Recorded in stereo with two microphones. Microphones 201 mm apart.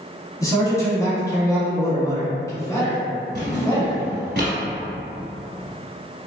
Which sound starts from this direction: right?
A drawer, at 3.4 s.